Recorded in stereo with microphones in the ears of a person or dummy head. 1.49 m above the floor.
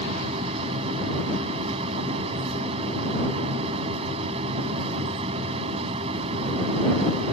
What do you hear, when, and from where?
0.0 s a machine running: 30° right (ahead or behind)